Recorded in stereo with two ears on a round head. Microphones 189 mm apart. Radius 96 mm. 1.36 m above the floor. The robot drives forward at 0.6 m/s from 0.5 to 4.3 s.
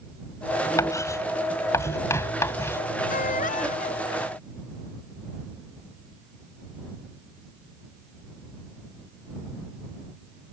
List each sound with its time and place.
0.8 s writing: 15° left (ahead or behind)
3.1 s a baby crying: 40° left (ahead or behind)